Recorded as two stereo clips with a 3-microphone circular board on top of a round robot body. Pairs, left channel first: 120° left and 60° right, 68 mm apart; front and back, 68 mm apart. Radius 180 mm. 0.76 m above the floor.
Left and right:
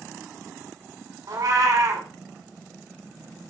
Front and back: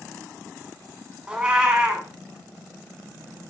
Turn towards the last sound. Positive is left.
turn(degrees=-100)